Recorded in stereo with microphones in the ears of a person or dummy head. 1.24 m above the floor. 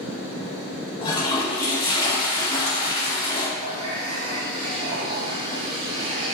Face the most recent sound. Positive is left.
turn(degrees=-30)  # may be behind; listen again after turning